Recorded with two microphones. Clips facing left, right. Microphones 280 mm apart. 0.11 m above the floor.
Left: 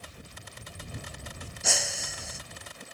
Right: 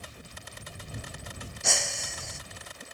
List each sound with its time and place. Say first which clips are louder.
1.6 s breaking glass: even; centre (ahead or behind)